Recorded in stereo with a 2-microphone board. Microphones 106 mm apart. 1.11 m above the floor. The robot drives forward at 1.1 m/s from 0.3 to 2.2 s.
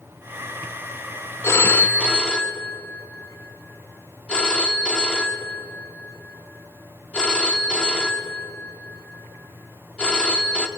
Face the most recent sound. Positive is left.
turn(degrees=10)  # may be behind; listen again after turning